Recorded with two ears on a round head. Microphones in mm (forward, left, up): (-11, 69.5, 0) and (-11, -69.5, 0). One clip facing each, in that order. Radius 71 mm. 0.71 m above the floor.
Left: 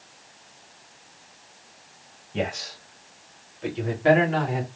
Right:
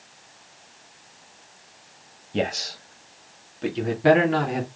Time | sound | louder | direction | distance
2.3 | a man speaking | right 3 dB | 40° right (ahead or behind) | 1.1 m